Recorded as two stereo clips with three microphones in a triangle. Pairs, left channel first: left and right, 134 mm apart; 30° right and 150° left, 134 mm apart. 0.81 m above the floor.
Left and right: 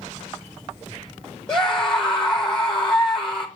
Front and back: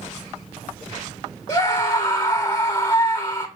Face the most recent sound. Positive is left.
turn(degrees=5)